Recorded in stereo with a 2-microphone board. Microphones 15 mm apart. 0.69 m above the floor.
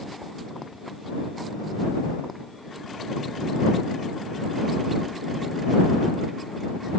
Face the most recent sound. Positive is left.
No sound to turn to.